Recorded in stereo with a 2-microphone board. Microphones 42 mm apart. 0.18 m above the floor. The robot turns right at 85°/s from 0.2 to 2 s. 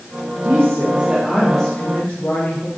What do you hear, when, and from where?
0.5 s a woman speaking: 90° right, 5 m; by 2.7 s 40° left, 5 m